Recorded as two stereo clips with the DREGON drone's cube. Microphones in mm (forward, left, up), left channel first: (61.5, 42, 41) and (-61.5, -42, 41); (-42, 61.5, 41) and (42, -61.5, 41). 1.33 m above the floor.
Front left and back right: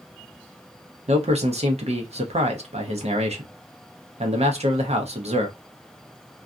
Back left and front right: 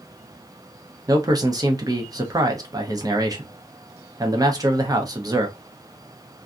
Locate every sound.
1.1 s a man speaking: 115° right, 0.8 m